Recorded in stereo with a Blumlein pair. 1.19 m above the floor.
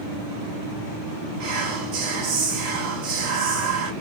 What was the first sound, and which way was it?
Whispering, 45° right.